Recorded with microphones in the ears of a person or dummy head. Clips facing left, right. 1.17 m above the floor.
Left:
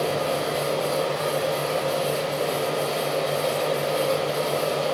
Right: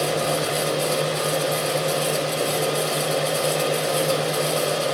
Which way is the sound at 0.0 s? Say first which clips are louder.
Right 1 dB; 35° right (ahead or behind).